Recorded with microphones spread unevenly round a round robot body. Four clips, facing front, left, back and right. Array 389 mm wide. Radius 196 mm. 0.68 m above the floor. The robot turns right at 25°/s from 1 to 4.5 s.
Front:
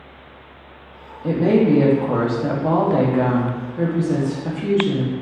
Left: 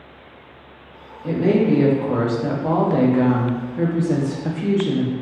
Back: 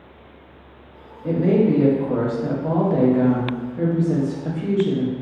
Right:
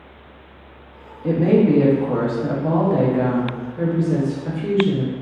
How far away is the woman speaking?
About 0.7 m.